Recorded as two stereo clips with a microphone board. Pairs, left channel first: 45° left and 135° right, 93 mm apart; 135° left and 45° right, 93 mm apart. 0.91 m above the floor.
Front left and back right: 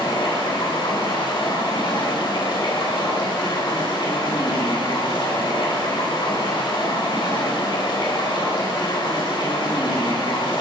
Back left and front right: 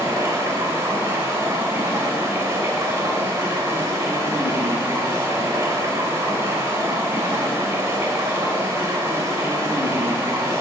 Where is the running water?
15° left, 3.5 m.